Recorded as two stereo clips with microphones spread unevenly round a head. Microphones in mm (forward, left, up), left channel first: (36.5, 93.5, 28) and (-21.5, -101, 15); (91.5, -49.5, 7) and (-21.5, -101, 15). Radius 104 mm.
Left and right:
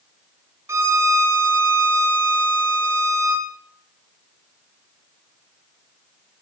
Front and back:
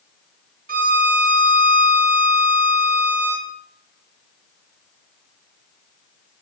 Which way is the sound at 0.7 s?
175° left.